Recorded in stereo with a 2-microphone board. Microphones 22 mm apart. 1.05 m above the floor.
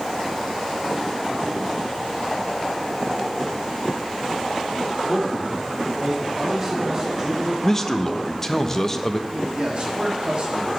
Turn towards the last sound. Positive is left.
turn(degrees=-45)  # may be behind; listen again after turning